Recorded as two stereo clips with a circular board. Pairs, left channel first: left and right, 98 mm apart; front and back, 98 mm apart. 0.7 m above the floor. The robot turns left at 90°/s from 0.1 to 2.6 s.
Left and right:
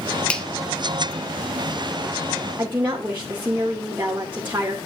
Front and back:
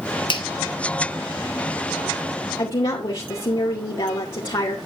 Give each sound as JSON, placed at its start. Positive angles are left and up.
{"t": 0.3, "sound": "a finger snap", "azimuth_deg": 15, "distance_m": 1.3}
{"t": 2.6, "sound": "a woman speaking", "azimuth_deg": -25, "distance_m": 2.5}